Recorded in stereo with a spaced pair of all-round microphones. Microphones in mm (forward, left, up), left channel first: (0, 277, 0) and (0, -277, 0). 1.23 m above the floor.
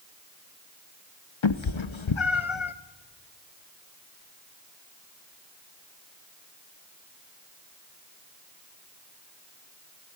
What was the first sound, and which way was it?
A cat meowing, 60° left (ahead or behind).